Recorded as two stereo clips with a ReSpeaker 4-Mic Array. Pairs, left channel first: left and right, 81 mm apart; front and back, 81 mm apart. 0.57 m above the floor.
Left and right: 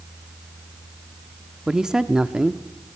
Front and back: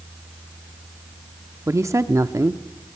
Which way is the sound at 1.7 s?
165° right.